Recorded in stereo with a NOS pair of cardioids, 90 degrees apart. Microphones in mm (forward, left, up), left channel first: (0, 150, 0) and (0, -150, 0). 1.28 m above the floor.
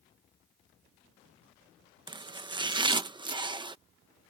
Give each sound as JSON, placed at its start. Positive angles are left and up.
{"t": 2.1, "sound": "chopping", "azimuth_deg": -15}